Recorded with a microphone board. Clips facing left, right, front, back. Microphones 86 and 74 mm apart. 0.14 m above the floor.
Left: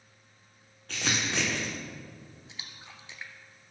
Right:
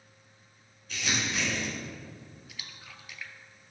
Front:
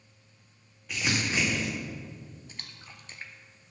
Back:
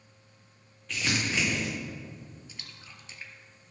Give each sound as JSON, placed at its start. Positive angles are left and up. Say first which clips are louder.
{"t": 0.9, "sound": "crumpling", "louder": "left 1 dB, front 1 dB", "azimuth_deg": 75, "distance_m": 3.5}
{"t": 2.5, "sound": "a splash", "louder": "even, front 1 dB", "azimuth_deg": 30, "distance_m": 0.9}